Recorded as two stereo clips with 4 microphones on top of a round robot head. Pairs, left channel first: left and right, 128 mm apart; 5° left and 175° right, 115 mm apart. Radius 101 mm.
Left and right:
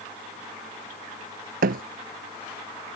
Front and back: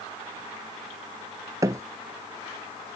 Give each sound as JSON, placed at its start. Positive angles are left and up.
{"t": 1.6, "sound": "a thud", "azimuth_deg": -105}